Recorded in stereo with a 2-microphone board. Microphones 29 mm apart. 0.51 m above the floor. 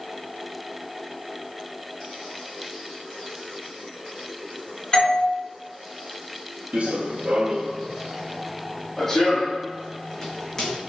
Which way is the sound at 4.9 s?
25° left (ahead or behind).